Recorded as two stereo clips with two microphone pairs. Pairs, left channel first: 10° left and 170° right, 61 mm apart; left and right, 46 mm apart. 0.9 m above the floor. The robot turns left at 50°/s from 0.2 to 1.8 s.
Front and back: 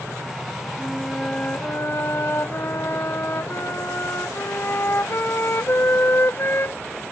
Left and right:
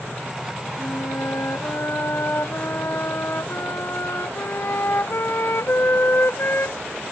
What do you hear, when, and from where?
0.8 s a flute: 110° left; by 6.8 s 60° left